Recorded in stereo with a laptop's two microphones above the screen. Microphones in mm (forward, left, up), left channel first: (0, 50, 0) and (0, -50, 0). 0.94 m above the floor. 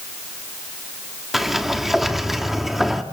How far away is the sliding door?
About 1.0 m.